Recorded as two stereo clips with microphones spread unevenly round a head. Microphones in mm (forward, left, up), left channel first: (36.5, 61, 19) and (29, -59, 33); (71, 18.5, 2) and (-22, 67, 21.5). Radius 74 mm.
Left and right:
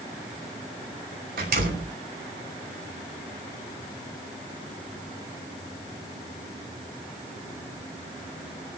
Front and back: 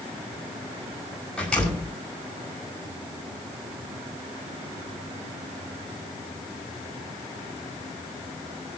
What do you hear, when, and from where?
1.4 s a door slam: 115° right, 6 m